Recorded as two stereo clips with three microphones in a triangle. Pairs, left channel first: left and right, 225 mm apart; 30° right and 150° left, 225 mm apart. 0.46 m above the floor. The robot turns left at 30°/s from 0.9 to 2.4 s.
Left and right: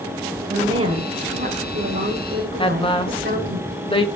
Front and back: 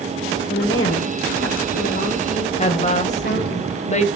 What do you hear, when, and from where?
0.5 s a woman speaking: 20° right, 1.8 m; by 3.6 s 65° right, 1.8 m
2.6 s a woman speaking: 25° left, 1.7 m